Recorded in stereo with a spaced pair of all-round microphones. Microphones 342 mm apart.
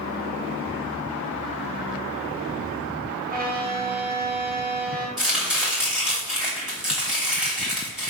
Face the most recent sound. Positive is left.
turn(degrees=0)  # may be behind; listen again after turning